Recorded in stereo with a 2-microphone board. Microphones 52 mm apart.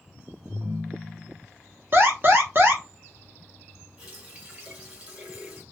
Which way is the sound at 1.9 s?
45° right (ahead or behind).